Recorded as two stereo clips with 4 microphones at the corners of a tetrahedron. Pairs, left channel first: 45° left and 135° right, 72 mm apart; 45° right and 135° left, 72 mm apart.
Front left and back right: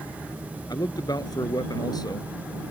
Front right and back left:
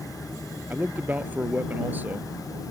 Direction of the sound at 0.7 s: 70° left.